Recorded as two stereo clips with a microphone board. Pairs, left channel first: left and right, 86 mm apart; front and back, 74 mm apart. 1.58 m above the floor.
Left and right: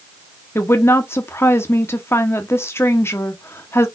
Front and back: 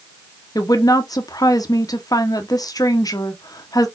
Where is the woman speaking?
30° left, 1.0 m.